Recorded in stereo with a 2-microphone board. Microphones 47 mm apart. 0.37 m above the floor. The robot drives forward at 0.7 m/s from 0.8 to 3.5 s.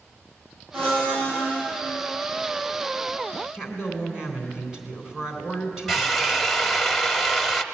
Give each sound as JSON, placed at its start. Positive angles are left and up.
{"t": 0.7, "sound": "a blender", "side_deg": -55, "distance_m": 8.0}
{"t": 3.5, "sound": "a woman speaking", "side_deg": -15, "distance_m": 3.5}
{"t": 5.9, "sound": "a drill", "side_deg": -5, "distance_m": 0.8}